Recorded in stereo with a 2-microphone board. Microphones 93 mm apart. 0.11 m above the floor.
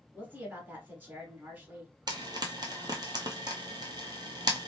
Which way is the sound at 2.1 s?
50° right (ahead or behind).